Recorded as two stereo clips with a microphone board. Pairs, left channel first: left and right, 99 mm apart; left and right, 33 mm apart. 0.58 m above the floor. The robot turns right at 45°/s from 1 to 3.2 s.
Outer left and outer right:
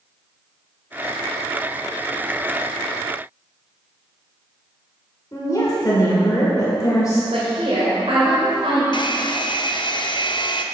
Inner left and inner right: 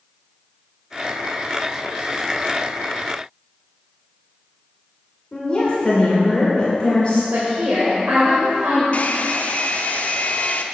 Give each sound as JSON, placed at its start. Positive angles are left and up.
{"t": 5.3, "sound": "a woman speaking", "side_deg": 35, "distance_m": 1.9}
{"t": 7.3, "sound": "a woman speaking", "side_deg": -70, "distance_m": 2.5}
{"t": 8.9, "sound": "a hair dryer", "side_deg": 50, "distance_m": 0.5}